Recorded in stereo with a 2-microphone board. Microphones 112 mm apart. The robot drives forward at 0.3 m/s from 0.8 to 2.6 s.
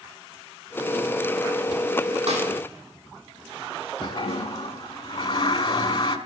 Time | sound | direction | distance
2.3 | a snare drum | 70° right (ahead or behind) | 3.5 m
4.0 | a toilet flushing | 50° left (ahead or behind) | 0.8 m